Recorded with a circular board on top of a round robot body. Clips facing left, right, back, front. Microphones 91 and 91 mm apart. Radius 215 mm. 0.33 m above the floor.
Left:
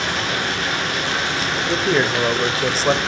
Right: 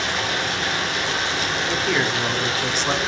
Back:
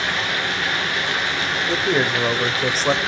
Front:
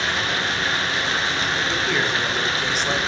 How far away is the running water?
About 5 m.